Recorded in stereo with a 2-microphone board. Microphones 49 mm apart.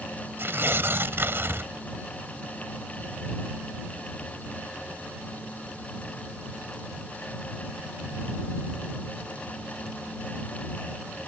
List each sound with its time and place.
0.4 s tearing paper: 55° right (ahead or behind)